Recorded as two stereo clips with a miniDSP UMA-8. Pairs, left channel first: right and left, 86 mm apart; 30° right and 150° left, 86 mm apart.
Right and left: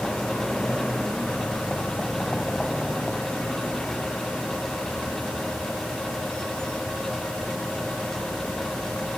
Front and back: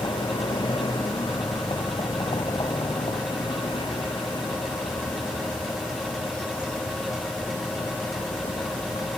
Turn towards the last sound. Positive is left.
turn(degrees=-10)